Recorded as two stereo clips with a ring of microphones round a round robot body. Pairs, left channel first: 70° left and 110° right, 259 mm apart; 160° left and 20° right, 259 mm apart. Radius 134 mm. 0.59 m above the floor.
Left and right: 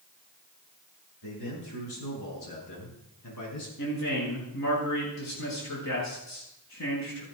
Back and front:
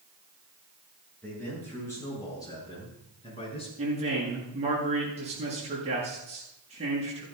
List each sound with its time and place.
1.2 s a man speaking: 75° left, 7.5 m; by 3.7 s 90° left, 7 m
3.8 s a man speaking: 45° left, 8.5 m